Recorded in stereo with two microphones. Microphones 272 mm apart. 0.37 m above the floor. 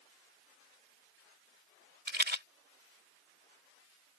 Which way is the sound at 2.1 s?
40° right (ahead or behind).